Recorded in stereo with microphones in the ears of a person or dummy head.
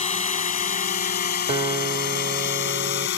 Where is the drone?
35° left (ahead or behind); by 3.2 s 60° left (ahead or behind).